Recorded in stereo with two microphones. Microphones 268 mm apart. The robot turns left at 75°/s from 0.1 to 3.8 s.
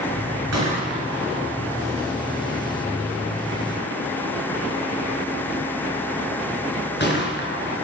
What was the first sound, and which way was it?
A gunshot, 70° right (ahead or behind).